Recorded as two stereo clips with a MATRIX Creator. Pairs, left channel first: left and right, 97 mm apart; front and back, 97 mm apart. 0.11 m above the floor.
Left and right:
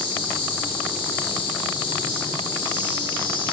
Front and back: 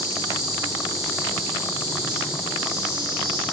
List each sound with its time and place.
0.0 s an insect: 125° left, 1.8 m